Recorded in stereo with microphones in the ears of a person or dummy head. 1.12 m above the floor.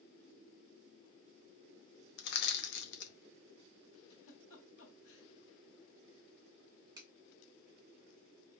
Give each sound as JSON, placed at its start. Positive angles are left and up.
{"t": 2.2, "sound": "crushing", "side_deg": 60, "distance_m": 0.7}
{"t": 4.1, "sound": "a giggle", "side_deg": 75, "distance_m": 2.0}
{"t": 7.0, "sound": "a finger snap", "side_deg": -20, "distance_m": 1.0}